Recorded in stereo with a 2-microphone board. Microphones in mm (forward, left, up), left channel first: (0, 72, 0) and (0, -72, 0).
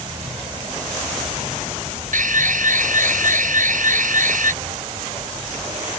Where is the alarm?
75° right (ahead or behind).